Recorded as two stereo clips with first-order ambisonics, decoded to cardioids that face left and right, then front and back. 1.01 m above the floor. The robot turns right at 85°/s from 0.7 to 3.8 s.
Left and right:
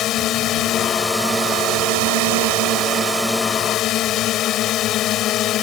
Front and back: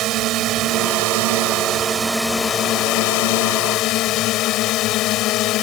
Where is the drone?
140° left; by 5.6 s 40° left.